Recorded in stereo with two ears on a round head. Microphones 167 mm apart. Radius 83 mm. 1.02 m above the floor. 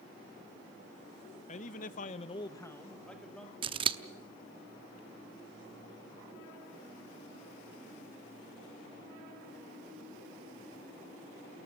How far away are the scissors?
About 0.8 m.